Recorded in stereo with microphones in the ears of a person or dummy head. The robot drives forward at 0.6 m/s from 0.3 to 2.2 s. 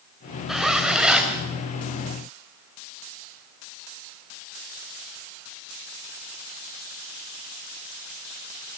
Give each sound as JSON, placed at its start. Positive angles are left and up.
{"t": 0.5, "sound": "a zipper", "side_deg": 0, "distance_m": 2.5}